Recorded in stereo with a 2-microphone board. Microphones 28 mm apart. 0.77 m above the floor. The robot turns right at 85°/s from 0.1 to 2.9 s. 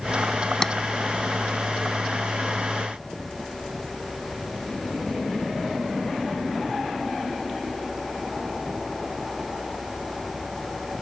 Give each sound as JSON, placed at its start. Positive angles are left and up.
{"t": 0.6, "sound": "tapping", "side_deg": 20}